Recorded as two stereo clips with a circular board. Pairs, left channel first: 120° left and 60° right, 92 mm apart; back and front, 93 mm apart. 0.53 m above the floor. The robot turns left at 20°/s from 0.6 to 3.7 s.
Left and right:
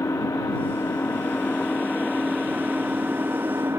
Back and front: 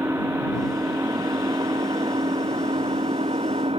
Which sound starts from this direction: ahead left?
An engine running, at 0.0 s.